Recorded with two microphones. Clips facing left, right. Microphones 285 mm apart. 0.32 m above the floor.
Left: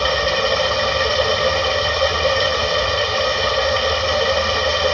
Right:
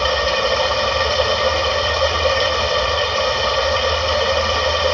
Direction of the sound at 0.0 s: 25° left (ahead or behind).